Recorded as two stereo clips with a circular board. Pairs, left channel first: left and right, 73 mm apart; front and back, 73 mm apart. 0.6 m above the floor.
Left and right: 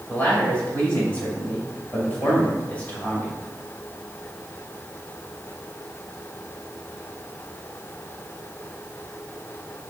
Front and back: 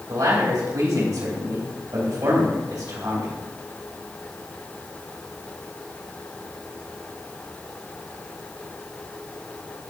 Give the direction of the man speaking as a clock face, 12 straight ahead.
7 o'clock.